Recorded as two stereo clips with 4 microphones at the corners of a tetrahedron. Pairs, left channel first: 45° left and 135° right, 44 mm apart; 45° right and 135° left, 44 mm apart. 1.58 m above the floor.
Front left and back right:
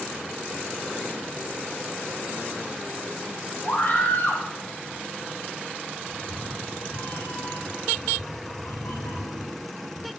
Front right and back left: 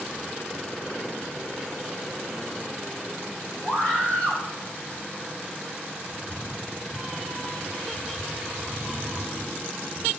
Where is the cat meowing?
50° left, 8 m.